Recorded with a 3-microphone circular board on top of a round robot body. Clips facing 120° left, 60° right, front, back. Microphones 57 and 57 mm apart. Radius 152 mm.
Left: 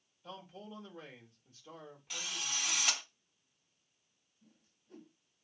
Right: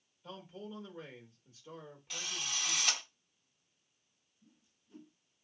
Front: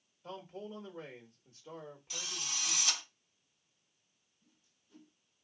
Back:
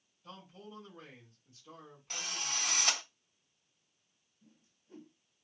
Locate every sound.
0.2 s a man speaking: 30° left, 1.6 m
2.1 s a drill: 155° right, 1.1 m
4.4 s a whoosh: 140° left, 1.4 m